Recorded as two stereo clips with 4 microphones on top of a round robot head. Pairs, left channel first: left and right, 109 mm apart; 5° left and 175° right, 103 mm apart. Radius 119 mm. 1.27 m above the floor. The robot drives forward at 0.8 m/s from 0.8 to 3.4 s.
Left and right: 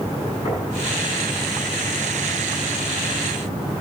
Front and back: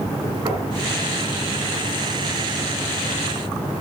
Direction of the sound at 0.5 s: 135° left.